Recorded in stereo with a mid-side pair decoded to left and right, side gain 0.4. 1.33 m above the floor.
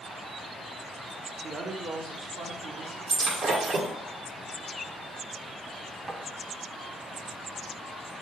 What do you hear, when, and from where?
1.4 s a woman speaking: 45° right, 1.1 m; by 3.0 s 75° right, 1.6 m
3.1 s breaking glass: 65° right, 1.8 m
6.1 s tapping: 30° right, 1.3 m